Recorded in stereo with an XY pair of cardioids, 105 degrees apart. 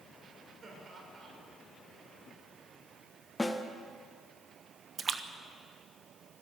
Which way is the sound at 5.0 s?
40° right.